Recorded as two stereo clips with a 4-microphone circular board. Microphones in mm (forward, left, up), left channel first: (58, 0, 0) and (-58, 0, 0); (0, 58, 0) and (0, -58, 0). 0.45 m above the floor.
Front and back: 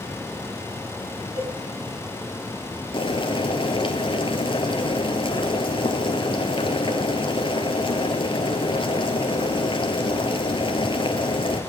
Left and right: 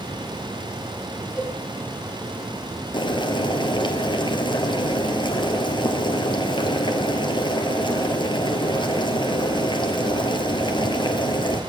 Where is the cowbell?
Straight behind, 3.5 m.